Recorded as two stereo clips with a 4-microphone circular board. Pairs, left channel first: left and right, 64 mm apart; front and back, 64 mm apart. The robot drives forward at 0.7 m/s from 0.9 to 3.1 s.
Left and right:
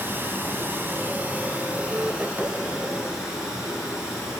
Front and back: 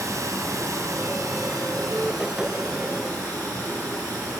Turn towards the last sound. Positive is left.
turn(degrees=-165)